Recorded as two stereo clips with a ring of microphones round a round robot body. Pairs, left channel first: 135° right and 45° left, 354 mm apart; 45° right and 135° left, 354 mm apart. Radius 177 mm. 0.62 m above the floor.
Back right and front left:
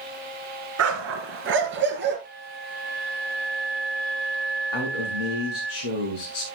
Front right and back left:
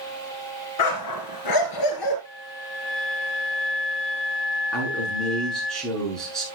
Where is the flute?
20° right, 6 m.